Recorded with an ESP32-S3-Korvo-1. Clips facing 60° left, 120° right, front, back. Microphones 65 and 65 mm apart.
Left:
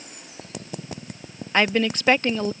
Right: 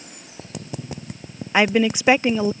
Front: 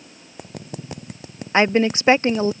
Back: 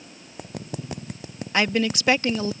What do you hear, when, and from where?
1.5 s a woman speaking: 45° right